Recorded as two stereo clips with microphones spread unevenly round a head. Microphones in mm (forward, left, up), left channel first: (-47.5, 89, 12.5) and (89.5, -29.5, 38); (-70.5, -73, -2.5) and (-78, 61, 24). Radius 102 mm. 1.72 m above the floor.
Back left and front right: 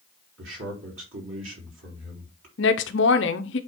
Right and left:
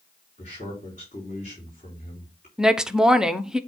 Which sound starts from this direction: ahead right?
A man speaking, at 0.4 s.